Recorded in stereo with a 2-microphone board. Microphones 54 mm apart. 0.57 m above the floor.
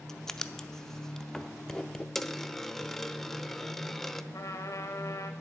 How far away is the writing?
About 0.6 m.